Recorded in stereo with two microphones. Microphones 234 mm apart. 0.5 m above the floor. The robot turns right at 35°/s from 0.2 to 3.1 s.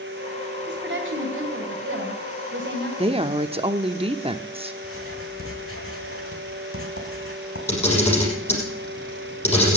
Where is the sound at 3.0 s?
25° right (ahead or behind), 0.8 m.